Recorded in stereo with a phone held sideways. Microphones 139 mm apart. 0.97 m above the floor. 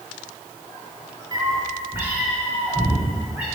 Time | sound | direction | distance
1.3 | a cat meowing | 30° right (ahead or behind) | 0.8 m